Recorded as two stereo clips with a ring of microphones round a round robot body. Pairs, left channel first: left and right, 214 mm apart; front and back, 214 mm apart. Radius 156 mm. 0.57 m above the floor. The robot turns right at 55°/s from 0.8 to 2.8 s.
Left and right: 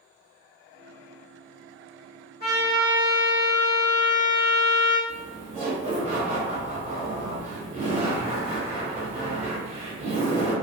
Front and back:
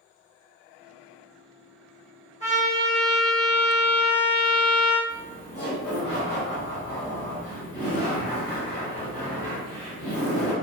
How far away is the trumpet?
About 1.4 m.